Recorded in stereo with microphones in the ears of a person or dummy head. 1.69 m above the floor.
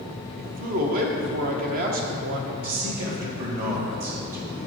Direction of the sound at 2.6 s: 45° right (ahead or behind).